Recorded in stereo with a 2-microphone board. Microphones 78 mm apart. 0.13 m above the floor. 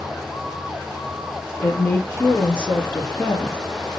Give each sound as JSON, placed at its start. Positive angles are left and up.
{"t": 1.6, "sound": "a woman speaking", "side_deg": 30, "distance_m": 2.5}